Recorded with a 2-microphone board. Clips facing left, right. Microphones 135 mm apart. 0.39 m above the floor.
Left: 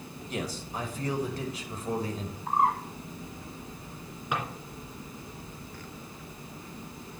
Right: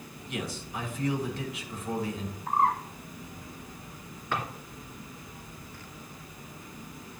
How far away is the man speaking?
About 1.5 m.